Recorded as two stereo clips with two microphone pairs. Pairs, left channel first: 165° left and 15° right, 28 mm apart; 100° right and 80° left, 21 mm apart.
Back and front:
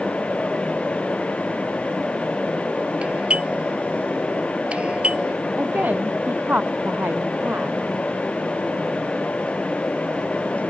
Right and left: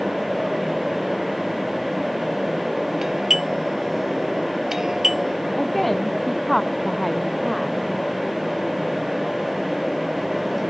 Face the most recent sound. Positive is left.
turn(degrees=-15)